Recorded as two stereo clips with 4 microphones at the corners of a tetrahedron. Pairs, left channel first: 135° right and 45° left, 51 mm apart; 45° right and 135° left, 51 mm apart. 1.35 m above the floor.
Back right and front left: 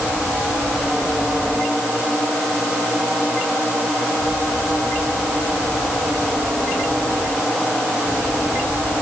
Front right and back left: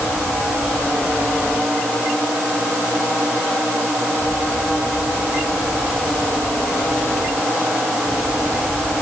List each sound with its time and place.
Only background noise.